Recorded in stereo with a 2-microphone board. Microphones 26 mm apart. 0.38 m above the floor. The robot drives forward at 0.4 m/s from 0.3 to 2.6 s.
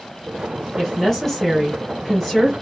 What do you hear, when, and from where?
0.8 s a woman speaking: 5° left (ahead or behind), 1.7 m